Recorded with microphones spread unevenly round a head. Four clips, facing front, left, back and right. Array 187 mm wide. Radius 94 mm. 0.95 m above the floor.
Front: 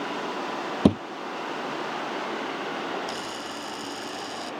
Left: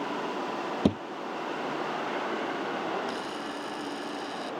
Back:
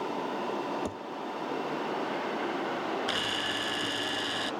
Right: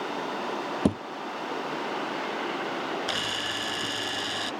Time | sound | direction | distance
0.8 | a thud | 5° right | ?
3.1 | a camera shutter | 115° right | ?